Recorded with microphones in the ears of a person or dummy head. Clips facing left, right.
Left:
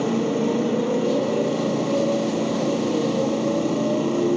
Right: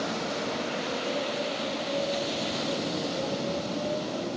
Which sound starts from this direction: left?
A motorcycle, at 0.0 s.